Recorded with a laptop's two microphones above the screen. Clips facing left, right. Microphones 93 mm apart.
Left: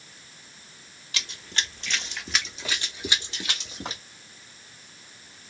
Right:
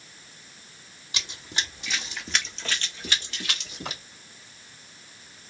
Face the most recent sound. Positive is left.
turn(degrees=30)  # may be behind; listen again after turning